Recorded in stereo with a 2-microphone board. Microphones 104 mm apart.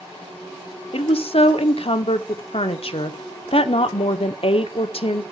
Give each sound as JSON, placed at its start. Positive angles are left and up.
{"t": 0.9, "sound": "a woman speaking", "side_deg": 65, "distance_m": 1.0}